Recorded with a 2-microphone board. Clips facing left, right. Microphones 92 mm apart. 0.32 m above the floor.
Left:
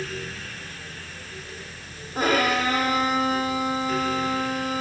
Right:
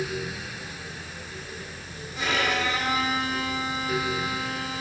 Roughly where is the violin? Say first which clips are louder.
Left 5 dB; left.